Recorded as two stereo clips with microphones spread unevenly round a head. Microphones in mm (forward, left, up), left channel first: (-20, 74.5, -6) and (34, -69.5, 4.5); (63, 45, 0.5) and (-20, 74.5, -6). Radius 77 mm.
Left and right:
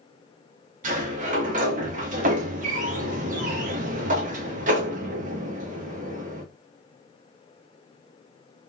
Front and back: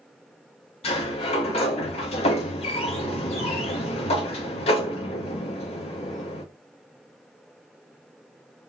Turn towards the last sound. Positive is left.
turn(degrees=-30)